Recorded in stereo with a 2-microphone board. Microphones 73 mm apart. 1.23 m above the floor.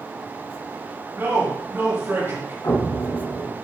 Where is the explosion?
55° left (ahead or behind), 1.4 m.